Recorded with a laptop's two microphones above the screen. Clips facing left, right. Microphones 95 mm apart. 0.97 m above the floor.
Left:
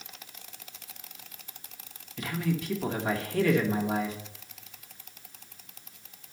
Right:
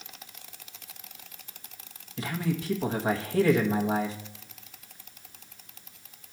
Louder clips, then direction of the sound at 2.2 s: Even; 30° right (ahead or behind).